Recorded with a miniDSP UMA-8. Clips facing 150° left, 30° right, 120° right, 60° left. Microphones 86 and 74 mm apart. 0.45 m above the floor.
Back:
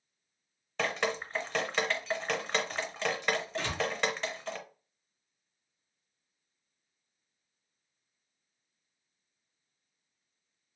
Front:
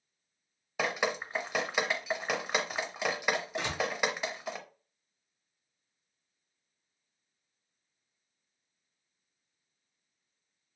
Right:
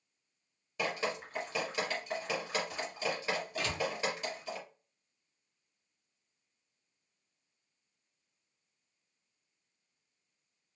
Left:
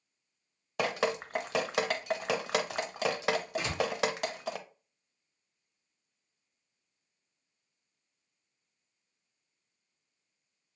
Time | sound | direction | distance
0.8 | dripping | 50° left | 0.5 m
3.6 | a door slam | 15° left | 0.7 m